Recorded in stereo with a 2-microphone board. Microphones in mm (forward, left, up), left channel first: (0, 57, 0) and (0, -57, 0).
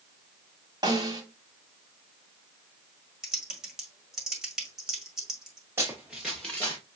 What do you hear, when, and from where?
0.8 s a snare drum: 40° right (ahead or behind), 1.7 m
3.2 s typing on a keyboard: 5° right (ahead or behind), 1.7 m
5.8 s running footsteps: 20° right (ahead or behind), 2 m; by 6.8 s 25° left (ahead or behind), 1.9 m